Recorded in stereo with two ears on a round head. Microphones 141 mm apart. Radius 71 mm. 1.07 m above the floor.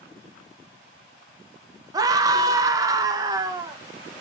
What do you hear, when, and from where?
1.9 s a scream: 20° right (ahead or behind), 0.6 m